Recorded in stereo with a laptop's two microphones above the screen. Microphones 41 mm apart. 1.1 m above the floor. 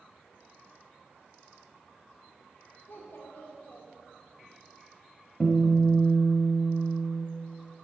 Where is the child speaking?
70° left (ahead or behind), 2 m.